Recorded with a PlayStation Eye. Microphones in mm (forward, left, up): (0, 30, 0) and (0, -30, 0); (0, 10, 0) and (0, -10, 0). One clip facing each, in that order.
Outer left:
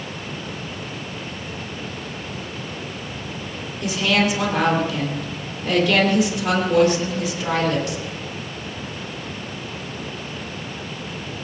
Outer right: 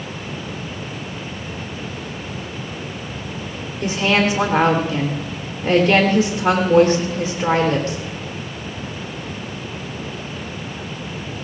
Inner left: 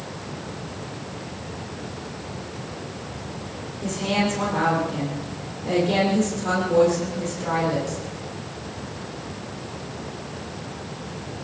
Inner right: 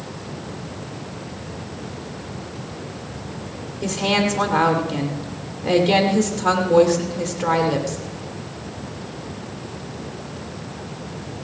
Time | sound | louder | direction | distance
3.8 | a woman speaking | outer right 2 dB, inner right 4 dB | 40° right (ahead or behind) | 3.5 m